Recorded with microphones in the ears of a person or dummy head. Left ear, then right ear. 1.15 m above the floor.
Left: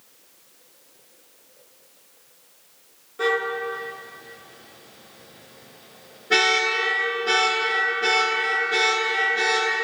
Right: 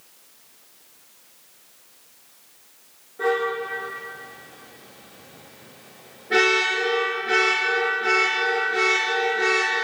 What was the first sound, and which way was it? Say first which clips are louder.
A car horn: even; 45° left (ahead or behind).